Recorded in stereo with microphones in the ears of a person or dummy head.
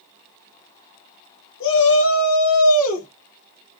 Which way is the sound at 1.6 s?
65° left (ahead or behind).